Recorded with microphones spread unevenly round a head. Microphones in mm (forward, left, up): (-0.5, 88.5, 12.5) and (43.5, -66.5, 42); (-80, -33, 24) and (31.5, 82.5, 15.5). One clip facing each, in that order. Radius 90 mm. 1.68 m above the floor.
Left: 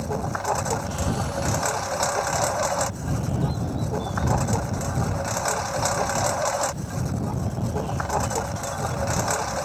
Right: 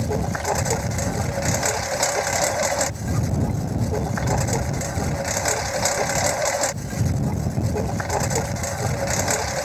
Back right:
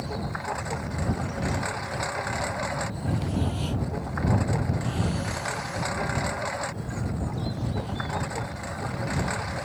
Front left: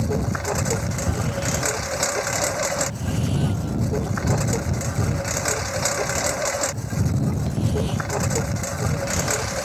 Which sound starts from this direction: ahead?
A lawn mower, at 0.0 s.